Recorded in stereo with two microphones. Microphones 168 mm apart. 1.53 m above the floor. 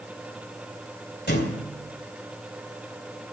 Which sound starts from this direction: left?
A thud, at 1.3 s.